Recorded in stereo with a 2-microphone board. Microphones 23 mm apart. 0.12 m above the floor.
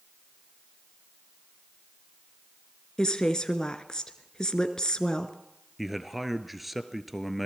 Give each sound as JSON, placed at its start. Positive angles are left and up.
{"t": 3.0, "sound": "a woman speaking", "side_deg": 30, "distance_m": 1.8}
{"t": 5.8, "sound": "a man speaking", "side_deg": -5, "distance_m": 1.6}